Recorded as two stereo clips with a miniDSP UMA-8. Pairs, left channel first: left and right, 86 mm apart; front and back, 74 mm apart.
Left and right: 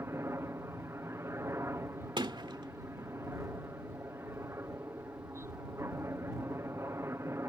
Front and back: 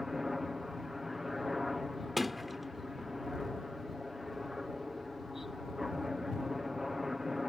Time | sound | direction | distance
0.0 | a helicopter | 95° right | ?
2.2 | a sliding door | 90° right | ?